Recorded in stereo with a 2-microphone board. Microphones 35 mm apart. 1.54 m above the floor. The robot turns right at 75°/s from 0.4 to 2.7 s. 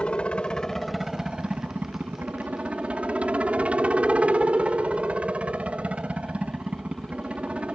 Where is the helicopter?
140° left; by 7.8 s 45° right.